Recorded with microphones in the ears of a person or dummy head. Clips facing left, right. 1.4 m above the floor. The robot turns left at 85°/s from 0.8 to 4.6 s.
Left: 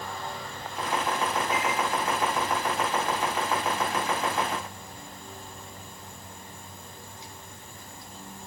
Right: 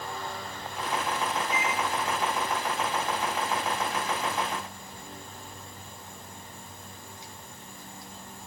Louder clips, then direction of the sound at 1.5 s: Left 2 dB; 60° right (ahead or behind).